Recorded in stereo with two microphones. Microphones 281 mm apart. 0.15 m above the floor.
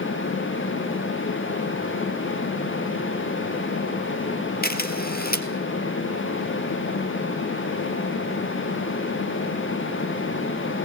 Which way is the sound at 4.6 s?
35° left (ahead or behind).